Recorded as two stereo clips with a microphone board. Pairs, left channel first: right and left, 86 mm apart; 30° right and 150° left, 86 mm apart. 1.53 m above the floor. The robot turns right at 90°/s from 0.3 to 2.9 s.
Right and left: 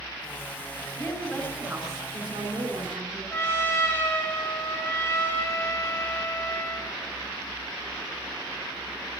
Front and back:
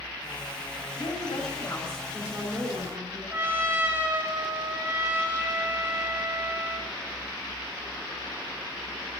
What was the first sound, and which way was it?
A woman speaking, 40° right.